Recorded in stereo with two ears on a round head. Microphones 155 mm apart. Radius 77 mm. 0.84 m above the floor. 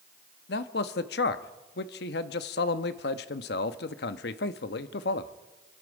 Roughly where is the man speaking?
Left.